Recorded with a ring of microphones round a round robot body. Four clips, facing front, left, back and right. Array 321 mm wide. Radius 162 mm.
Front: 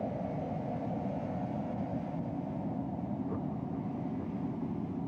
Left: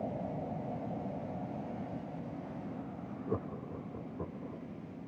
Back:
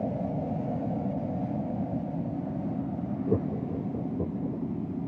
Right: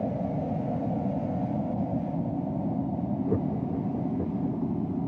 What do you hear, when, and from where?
0.0 s an aircraft: 130° right; by 5.1 s 115° right
3.3 s laughter: 150° right